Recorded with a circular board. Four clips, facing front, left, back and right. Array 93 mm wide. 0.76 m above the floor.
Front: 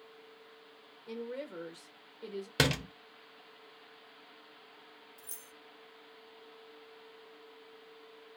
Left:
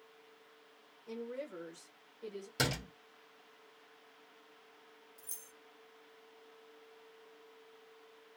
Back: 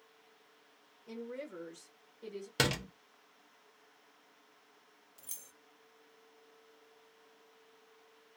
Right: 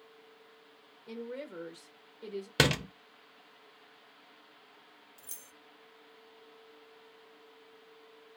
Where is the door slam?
75° right, 0.6 m.